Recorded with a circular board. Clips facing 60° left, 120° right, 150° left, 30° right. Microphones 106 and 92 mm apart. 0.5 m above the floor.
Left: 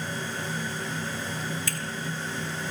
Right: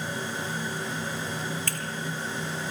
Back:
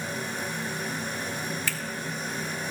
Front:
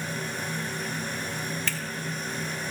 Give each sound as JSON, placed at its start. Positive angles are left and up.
{"t": 1.7, "sound": "a finger snap", "azimuth_deg": -130, "distance_m": 1.6}